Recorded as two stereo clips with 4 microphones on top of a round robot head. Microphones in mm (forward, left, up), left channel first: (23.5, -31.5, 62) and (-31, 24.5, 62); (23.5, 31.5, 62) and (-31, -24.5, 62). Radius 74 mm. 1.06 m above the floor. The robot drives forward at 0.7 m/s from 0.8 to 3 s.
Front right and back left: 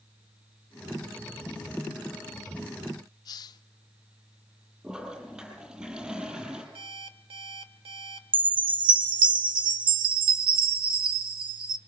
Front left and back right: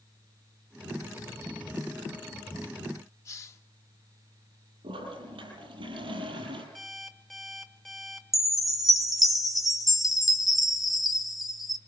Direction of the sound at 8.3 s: 140° left.